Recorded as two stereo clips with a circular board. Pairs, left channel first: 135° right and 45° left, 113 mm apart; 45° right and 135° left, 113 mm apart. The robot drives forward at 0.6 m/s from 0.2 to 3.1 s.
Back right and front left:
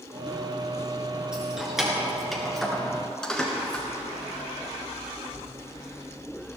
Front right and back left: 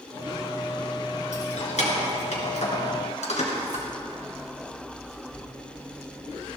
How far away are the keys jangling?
About 3.5 m.